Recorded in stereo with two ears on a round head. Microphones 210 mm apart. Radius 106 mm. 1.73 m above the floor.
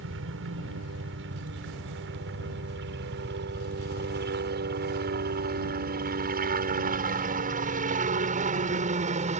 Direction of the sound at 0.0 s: 60° right (ahead or behind).